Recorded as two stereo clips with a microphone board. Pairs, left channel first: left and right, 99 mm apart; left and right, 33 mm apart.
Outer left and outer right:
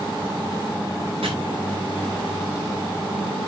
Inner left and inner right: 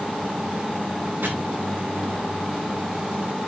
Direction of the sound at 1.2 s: 85° right.